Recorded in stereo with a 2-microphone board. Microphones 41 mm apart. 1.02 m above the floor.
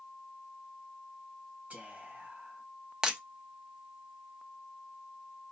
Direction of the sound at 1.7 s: 45° right (ahead or behind).